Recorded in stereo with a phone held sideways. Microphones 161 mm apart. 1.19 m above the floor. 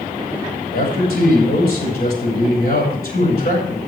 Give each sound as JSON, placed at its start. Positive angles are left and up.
{"t": 0.7, "sound": "a man speaking", "side_deg": 75, "distance_m": 7.0}